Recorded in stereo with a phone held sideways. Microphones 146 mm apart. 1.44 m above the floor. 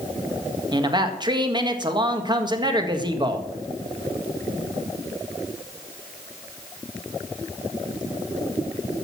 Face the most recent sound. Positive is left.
turn(degrees=-30)  # may be behind; listen again after turning